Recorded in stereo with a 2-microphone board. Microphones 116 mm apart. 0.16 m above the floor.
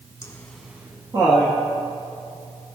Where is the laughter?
25° left (ahead or behind), 1.2 m; by 1.6 s 55° right (ahead or behind), 1.9 m.